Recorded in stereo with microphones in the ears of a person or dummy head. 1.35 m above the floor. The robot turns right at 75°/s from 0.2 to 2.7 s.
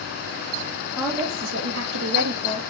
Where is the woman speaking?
5° right (ahead or behind), 0.9 m; by 2.7 s 45° right (ahead or behind), 0.9 m.